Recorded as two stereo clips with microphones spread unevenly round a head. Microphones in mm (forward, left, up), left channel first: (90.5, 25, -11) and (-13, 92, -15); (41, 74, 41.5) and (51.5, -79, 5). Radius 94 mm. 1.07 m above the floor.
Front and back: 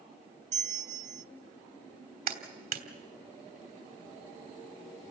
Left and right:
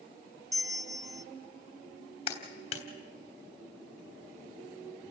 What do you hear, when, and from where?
0.5 s a bell: 155° right, 0.6 m
2.3 s a clap: 155° left, 3 m